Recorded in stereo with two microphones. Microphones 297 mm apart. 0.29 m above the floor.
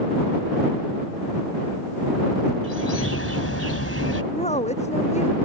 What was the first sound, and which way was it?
A bird, 50° left (ahead or behind).